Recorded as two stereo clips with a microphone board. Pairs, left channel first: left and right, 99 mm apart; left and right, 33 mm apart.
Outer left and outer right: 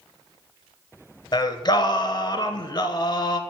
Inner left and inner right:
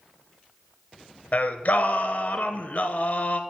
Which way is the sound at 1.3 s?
50° left (ahead or behind).